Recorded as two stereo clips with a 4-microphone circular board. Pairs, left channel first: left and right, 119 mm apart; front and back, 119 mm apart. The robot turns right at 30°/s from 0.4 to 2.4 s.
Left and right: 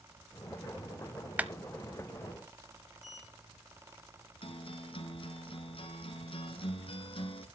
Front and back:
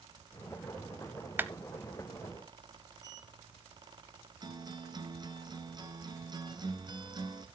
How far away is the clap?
About 0.7 m.